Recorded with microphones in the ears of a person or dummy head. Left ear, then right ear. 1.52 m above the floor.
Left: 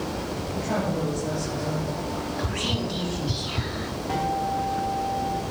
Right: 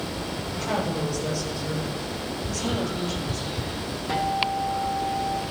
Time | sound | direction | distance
0.5 | a woman speaking | 50° right (ahead or behind) | 7 m
2.4 | whispering | 65° left (ahead or behind) | 0.5 m
4.1 | a guitar | 20° right (ahead or behind) | 1.3 m